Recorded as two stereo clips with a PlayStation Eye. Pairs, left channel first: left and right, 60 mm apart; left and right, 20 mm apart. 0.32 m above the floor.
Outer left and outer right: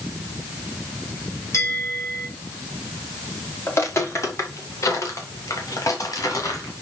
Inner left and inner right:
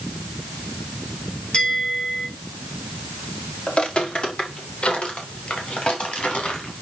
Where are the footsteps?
45° left (ahead or behind), 2.5 m; by 6.7 s 65° left (ahead or behind), 4.5 m.